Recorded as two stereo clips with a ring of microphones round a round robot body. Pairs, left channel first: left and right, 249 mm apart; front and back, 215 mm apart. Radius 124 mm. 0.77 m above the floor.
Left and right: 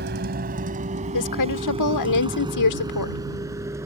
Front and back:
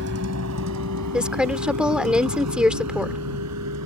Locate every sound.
0.0 s a vehicle: 140° right; by 3.9 s 170° right
1.1 s a woman speaking: 95° left